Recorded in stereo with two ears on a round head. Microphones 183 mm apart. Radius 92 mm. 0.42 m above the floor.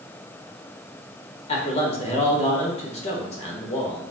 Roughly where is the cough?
No cough in this recording.